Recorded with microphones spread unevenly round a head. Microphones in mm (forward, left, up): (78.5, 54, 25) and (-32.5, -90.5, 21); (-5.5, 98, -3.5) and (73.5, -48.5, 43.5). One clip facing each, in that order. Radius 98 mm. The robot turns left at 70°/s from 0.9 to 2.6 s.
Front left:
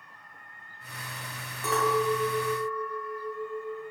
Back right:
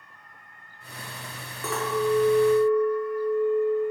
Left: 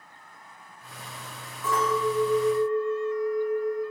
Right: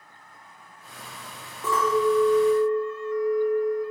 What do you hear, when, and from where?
1.6 s a clink: 130° right, 1.1 m; by 3.8 s 165° left, 1.1 m